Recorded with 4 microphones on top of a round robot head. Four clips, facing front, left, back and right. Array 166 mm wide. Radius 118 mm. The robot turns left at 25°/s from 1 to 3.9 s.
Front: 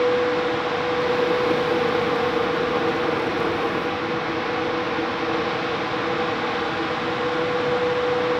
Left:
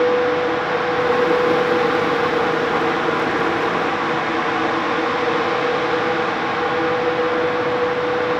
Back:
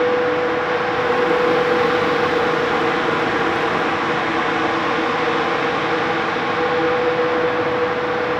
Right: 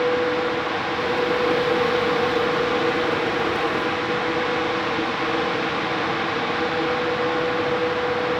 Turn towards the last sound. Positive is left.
No sound to turn to.